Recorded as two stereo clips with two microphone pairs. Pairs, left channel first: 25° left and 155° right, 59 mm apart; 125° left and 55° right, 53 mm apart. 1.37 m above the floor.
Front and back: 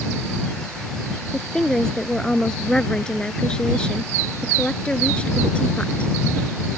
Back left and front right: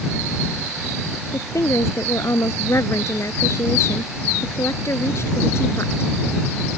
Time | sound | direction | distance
1.3 | a woman speaking | 105° left | ?